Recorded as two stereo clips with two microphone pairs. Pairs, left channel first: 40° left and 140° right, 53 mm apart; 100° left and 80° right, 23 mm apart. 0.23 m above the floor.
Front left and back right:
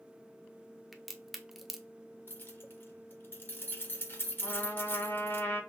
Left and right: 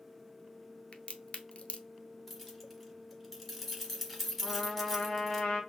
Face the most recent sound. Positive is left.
turn(degrees=70)